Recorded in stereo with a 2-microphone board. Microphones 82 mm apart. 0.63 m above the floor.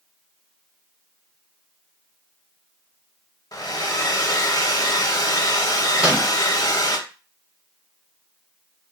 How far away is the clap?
I don't hear a clap.